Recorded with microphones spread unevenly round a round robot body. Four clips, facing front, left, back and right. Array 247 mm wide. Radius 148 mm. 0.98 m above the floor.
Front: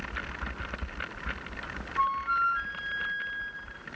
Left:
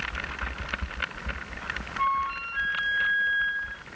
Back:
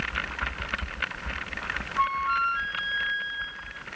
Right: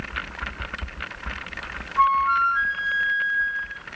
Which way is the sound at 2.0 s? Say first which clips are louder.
Right 9 dB, back 2 dB; 110° right.